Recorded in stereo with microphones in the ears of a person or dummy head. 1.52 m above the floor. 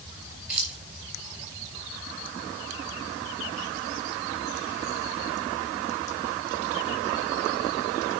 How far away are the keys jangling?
About 3 m.